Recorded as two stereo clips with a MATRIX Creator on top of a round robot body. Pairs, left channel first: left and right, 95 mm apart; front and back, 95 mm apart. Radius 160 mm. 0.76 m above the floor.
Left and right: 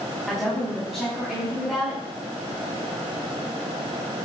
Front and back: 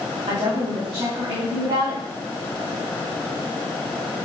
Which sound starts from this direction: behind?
A woman speaking, at 0.3 s.